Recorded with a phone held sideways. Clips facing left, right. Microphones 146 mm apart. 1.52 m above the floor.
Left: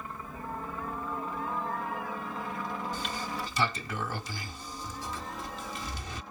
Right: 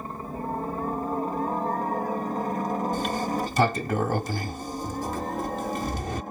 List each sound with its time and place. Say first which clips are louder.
0.0 s a helicopter: right 7 dB; 40° right (ahead or behind); by 6.3 s 50° right (ahead or behind)
2.9 s a sliding door: right 9 dB; 50° right (ahead or behind)